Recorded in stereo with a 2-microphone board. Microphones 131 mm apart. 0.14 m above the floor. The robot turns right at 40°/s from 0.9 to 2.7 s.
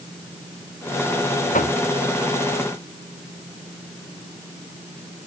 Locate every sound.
1.5 s knocking: 85° left